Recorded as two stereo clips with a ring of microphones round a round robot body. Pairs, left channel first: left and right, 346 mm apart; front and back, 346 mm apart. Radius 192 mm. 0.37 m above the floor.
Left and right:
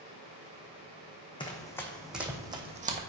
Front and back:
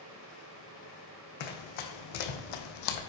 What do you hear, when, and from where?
1.4 s running footsteps: 15° left, 1.4 m; by 3.0 s 25° right, 1.1 m